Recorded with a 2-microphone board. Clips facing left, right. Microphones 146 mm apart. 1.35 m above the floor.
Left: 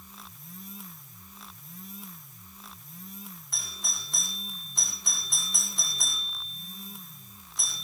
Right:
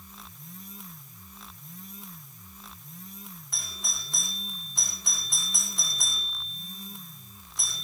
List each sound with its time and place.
3.5 s a doorbell: centre (ahead or behind), 4.5 m